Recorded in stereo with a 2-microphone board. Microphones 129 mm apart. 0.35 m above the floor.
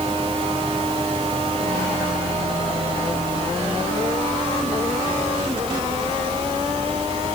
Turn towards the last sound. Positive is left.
No sound to turn to.